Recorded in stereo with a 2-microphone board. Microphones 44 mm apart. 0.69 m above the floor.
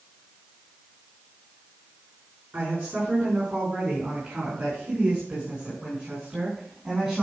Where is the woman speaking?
45° right (ahead or behind), 7 m; by 7.2 s 20° right (ahead or behind), 5 m.